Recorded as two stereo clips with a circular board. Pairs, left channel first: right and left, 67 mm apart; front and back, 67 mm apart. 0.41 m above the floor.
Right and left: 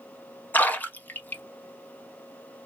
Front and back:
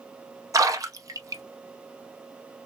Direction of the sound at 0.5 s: 155° right.